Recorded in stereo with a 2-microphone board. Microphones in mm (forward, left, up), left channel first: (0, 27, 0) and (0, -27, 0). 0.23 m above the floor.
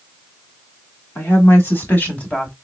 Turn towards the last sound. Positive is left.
turn(degrees=20)  # may be behind; listen again after turning